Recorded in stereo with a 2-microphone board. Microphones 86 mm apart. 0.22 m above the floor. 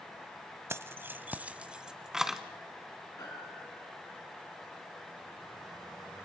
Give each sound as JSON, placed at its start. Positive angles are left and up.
{"t": 0.7, "sound": "keys jangling", "side_deg": -30, "distance_m": 0.7}
{"t": 3.2, "sound": "a piano", "side_deg": 40, "distance_m": 6.0}